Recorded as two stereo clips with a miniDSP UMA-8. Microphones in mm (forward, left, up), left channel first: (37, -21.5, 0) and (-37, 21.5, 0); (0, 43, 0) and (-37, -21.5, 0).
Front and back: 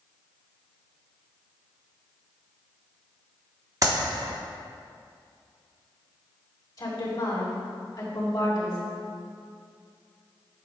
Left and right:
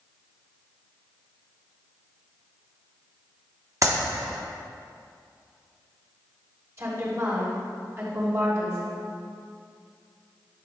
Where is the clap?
165° right, 1.1 m.